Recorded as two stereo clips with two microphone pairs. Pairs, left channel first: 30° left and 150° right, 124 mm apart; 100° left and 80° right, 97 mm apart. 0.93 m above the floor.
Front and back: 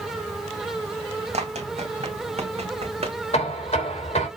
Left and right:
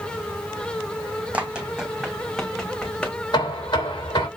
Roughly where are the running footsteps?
Behind right.